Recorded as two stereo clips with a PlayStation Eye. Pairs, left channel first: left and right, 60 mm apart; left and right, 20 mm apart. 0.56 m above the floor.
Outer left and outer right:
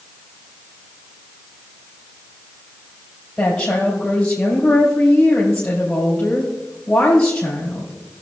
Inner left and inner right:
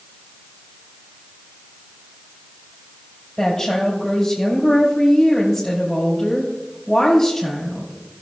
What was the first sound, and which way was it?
A woman speaking, 10° left (ahead or behind).